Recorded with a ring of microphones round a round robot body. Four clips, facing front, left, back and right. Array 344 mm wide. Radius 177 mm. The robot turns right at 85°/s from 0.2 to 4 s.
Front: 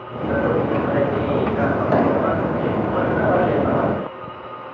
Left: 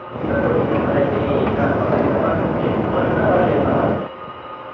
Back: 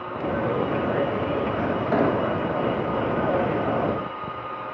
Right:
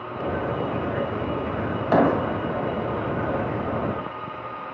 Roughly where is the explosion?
Ahead right.